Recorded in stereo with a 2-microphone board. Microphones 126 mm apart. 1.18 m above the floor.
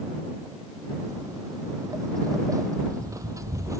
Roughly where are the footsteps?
Right.